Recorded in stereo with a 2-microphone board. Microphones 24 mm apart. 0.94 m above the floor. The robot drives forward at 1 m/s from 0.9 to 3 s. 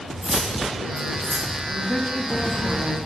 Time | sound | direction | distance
0.2 | cutlery clinking | 60° right (ahead or behind) | 4 m
1.7 | a woman speaking | 55° left (ahead or behind) | 3 m